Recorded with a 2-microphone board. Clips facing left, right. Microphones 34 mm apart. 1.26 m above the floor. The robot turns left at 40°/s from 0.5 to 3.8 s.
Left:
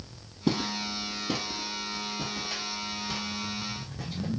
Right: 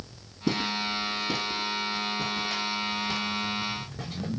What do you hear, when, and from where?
0.5 s footsteps: 50° left (ahead or behind), 2 m; by 4.3 s 45° right (ahead or behind), 4 m